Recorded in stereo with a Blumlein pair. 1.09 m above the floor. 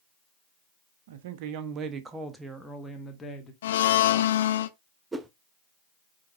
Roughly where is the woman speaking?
Ahead right.